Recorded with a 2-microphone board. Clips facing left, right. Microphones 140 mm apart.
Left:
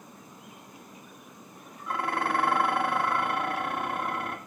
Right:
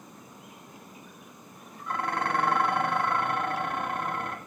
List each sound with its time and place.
1.9 s dishes clattering: 5° left (ahead or behind), 0.7 m